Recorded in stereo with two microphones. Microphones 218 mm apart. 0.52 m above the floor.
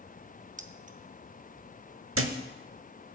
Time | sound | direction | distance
0.6 | keys jangling | 35° right (ahead or behind) | 0.7 m
2.1 | a thud | 80° right | 0.9 m